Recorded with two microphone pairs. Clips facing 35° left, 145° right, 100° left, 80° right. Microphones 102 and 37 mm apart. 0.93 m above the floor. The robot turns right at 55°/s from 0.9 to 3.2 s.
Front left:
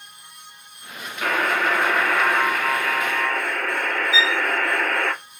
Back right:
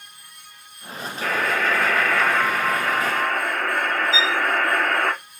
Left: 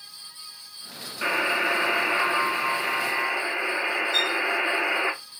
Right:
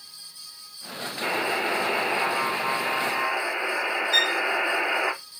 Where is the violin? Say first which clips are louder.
Even, right 5 dB; 85° right, 0.8 m.